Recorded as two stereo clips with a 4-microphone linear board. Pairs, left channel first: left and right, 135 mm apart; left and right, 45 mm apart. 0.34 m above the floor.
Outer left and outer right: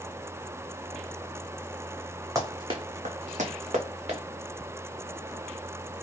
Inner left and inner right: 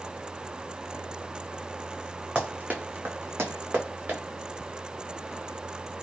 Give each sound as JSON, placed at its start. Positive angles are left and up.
{"t": 2.4, "sound": "running footsteps", "side_deg": -25, "distance_m": 1.1}